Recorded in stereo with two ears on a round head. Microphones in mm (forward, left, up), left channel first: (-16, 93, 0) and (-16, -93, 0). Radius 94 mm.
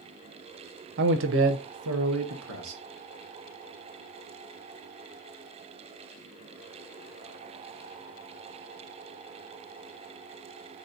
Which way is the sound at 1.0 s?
55° right (ahead or behind).